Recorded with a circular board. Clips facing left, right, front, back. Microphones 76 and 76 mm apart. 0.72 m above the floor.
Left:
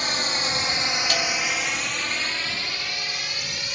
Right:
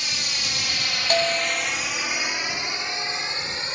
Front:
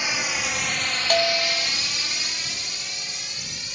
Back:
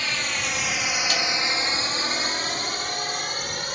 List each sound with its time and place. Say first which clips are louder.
0.0 s a drone: left 6 dB, front 1 dB; 70° left; by 3.8 s 150° right
1.1 s a bell: right 3 dB, front 4 dB; 40° right